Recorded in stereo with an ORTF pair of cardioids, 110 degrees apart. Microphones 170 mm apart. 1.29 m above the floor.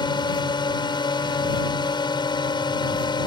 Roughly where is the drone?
Ahead left.